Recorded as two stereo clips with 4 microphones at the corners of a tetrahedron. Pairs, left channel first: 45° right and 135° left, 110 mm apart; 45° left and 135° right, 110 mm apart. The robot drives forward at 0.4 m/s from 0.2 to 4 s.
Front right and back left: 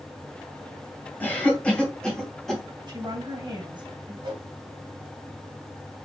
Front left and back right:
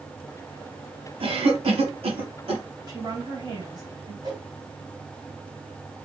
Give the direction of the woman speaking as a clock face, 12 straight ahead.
6 o'clock.